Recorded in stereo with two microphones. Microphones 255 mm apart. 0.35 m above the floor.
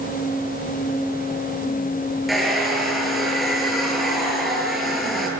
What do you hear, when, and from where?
2.3 s a hair dryer: centre (ahead or behind), 8 m